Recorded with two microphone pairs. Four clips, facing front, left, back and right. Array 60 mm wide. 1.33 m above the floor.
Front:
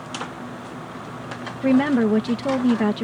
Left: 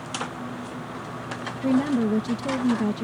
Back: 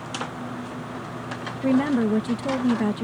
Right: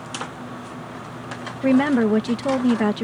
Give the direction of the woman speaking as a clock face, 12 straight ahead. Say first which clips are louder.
Right 5 dB, front 3 dB; 2 o'clock.